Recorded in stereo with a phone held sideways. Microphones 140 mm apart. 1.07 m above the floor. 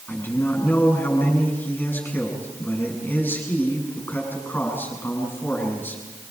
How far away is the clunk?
I don't hear a clunk.